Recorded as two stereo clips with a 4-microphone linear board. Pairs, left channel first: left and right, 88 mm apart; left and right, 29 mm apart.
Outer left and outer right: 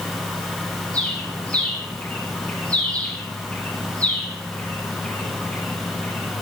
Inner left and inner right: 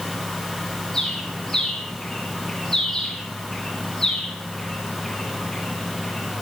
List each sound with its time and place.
0.9 s a bird: 15° left (ahead or behind), 4.5 m